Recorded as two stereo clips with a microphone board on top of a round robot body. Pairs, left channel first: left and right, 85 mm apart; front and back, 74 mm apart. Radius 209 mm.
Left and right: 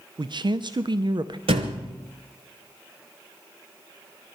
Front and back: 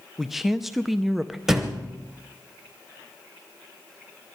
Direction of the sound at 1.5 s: 95° right.